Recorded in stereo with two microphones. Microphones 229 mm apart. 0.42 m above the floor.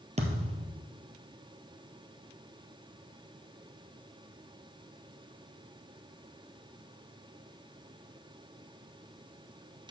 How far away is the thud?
About 1.4 m.